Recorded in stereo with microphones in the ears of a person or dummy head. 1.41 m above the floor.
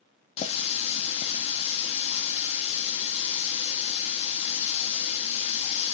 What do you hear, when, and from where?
0.4 s a running tap: 35° left (ahead or behind), 0.8 m